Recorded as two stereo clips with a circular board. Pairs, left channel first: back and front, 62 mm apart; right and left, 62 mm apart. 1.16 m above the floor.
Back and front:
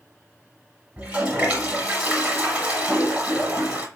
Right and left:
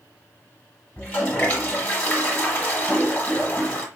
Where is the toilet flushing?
45° right, 1.2 m.